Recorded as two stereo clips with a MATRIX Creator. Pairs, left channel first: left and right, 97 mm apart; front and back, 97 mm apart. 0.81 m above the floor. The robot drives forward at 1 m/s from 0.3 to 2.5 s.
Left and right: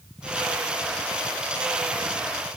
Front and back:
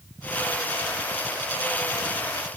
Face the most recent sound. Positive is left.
No sound to turn to.